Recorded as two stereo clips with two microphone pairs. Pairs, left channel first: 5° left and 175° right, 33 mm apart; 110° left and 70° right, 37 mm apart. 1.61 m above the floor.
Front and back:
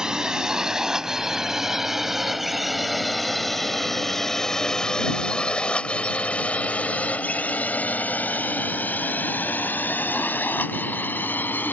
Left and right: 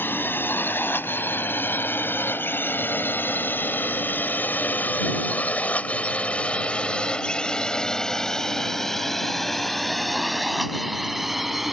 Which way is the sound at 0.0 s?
120° left.